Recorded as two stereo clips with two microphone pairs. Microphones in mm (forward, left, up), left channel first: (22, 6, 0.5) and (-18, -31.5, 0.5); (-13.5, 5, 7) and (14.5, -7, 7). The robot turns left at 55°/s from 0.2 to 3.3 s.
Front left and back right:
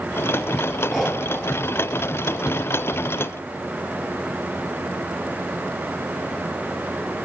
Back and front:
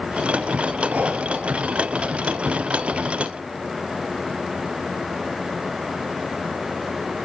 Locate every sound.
0.9 s breathing: 40° right, 1.5 m; by 1.2 s 60° right, 1.5 m